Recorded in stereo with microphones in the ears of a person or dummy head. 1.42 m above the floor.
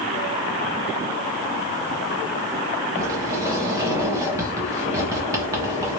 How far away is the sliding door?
About 1.3 m.